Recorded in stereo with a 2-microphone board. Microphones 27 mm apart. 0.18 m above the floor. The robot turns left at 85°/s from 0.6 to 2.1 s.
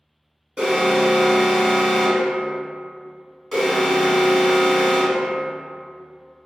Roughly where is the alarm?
Right.